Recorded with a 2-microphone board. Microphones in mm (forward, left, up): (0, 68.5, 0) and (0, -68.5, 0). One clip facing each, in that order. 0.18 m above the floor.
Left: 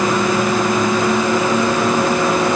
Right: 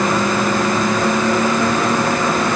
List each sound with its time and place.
Only background noise.